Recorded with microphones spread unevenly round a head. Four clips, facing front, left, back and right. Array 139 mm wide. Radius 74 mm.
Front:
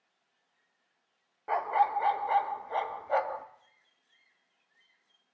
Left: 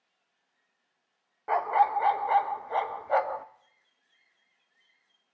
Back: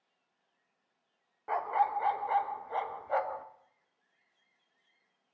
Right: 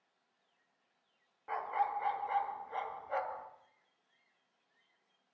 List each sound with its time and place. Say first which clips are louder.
1.5 s a dog barking: left 11 dB, front 3 dB; 100° left, 0.6 m